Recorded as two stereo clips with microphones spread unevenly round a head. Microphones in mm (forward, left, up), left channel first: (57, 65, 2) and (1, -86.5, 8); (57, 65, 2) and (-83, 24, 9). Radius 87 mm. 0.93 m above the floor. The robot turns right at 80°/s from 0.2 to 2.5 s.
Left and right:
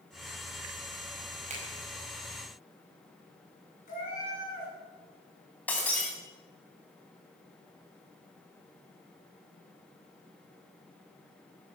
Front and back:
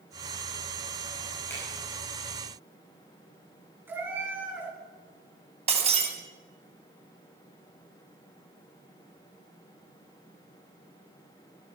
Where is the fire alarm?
I don't hear a fire alarm.